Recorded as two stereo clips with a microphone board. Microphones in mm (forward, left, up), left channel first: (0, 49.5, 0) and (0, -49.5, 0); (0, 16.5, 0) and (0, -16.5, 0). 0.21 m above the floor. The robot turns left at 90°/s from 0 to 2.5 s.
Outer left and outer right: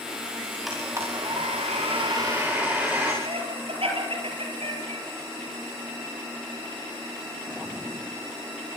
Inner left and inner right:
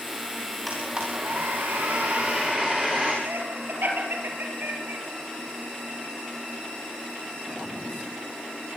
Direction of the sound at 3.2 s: 70° right (ahead or behind).